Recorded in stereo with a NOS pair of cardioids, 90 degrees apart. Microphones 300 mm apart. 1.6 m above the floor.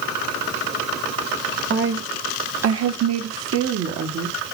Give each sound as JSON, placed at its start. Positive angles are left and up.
{"t": 1.7, "sound": "a woman speaking", "azimuth_deg": -35, "distance_m": 1.9}